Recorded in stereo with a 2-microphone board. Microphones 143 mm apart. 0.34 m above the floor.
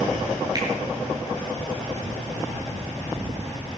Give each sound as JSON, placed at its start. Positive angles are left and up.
{"t": 0.6, "sound": "a finger snap", "side_deg": -25, "distance_m": 5.0}